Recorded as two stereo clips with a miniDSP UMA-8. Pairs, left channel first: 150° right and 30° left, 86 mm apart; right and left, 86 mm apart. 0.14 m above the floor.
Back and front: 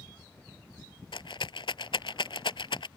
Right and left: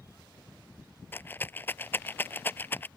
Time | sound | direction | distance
1.1 | a rattle | 155° right | ?